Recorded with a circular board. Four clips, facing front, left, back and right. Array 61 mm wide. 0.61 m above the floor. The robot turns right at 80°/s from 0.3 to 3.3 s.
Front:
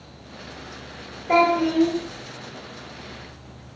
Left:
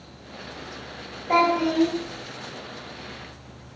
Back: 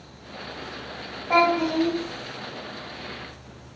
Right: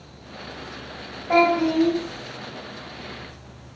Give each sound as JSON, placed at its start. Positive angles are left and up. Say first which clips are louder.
{"t": 1.3, "sound": "a child speaking", "louder": "right 2 dB, front 2 dB", "azimuth_deg": 15, "distance_m": 1.2}